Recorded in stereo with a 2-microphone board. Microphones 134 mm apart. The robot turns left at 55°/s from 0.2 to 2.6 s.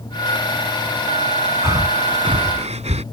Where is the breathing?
25° right; by 3.0 s 75° right.